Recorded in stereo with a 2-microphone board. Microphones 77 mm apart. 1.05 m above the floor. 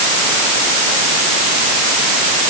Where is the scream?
I don't hear a scream.